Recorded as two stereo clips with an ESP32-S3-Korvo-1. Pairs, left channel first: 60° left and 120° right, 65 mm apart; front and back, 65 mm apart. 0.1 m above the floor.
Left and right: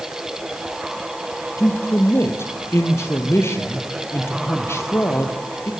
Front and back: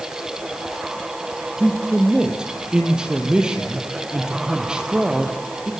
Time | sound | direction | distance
1.6 | a man speaking | 100° left | 3 m